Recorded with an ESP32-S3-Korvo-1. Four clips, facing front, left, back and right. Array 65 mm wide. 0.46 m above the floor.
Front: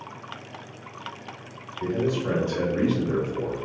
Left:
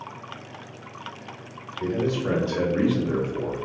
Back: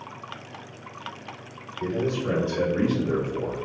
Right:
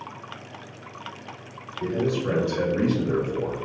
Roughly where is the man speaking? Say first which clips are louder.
Even, front 1 dB; left.